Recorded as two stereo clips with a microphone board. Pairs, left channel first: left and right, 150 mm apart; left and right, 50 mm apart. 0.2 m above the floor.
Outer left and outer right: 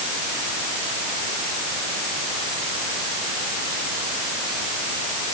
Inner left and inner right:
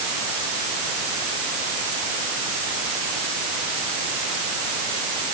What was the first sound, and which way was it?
Only background noise.